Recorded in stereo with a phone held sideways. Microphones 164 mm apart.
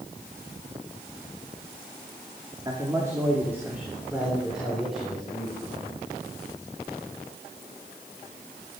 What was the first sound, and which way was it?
A man speaking, 25° right (ahead or behind).